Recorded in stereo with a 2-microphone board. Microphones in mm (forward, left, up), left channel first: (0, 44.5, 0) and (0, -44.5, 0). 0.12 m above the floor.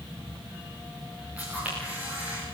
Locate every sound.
1.4 s a camera shutter: 15° right (ahead or behind), 9 m